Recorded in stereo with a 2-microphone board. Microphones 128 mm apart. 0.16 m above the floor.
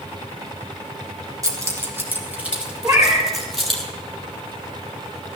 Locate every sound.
1.4 s keys jangling: 25° right (ahead or behind), 2.5 m; by 3.8 s 5° left (ahead or behind), 4 m
2.8 s a cat meowing: 20° right (ahead or behind), 4.5 m